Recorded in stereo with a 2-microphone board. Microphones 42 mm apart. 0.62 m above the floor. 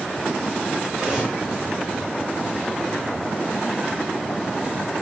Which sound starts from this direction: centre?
Cutlery clinking, at 0.9 s.